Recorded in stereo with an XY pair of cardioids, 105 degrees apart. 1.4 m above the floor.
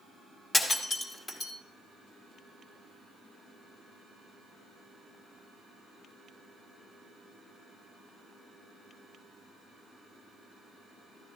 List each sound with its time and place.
0.5 s breaking glass: 40° left, 1.6 m